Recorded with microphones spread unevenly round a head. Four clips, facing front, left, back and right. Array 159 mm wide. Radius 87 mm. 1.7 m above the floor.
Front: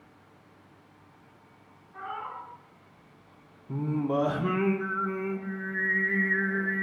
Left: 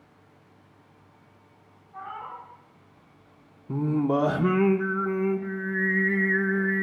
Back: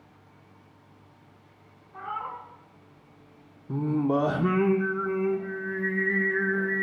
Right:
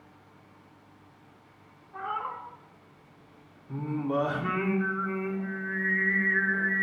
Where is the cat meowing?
90° right, 3 m.